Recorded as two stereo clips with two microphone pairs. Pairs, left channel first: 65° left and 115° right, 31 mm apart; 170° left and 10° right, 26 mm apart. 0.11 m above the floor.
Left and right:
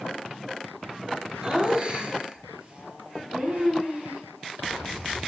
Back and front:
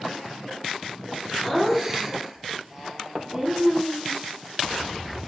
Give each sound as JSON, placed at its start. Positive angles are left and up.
{"t": 1.4, "sound": "laughter", "azimuth_deg": -95, "distance_m": 1.5}